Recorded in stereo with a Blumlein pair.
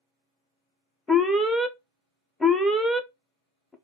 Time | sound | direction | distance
1.1 | an alarm | 5° left | 0.6 m